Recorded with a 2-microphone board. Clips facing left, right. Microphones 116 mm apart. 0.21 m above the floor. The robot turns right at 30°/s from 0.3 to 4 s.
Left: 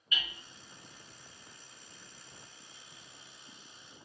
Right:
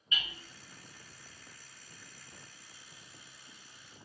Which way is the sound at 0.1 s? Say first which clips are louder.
Even; 30° right (ahead or behind).